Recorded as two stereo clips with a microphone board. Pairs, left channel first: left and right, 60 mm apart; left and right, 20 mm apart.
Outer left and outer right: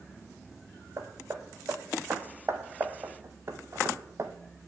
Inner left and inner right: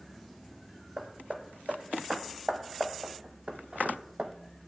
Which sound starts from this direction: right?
Hammering, at 1.0 s.